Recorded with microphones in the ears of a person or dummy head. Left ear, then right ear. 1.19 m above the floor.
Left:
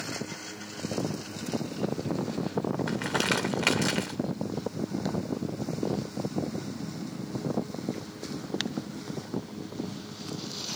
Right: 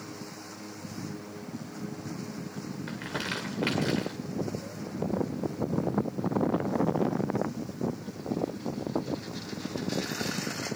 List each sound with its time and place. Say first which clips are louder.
2.9 s crumpling: left 4 dB; 45° left (ahead or behind), 2 m